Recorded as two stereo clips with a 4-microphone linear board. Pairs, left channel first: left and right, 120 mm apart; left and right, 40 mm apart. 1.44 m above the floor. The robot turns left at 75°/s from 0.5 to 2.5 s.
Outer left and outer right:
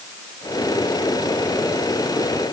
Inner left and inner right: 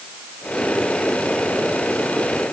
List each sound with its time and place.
Only background noise.